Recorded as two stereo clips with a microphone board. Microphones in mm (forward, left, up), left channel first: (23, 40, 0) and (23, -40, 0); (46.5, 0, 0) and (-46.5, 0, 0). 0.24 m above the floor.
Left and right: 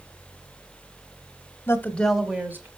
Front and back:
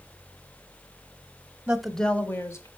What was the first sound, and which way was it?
A woman speaking, 110° left.